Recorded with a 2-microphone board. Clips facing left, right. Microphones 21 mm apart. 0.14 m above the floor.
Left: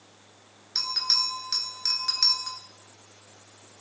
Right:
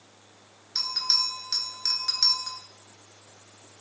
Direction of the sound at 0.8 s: 10° left (ahead or behind).